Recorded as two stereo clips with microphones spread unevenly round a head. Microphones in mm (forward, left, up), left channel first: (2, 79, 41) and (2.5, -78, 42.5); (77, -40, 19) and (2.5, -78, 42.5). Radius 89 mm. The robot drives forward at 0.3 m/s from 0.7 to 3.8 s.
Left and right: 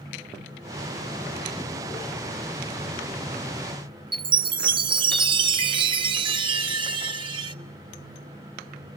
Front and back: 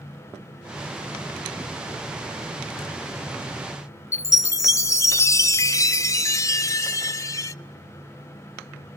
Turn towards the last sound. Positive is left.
turn(degrees=-30)